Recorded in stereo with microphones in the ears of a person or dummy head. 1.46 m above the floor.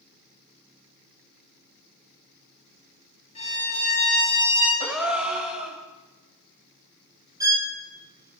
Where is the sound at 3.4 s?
35° left (ahead or behind), 6.5 m.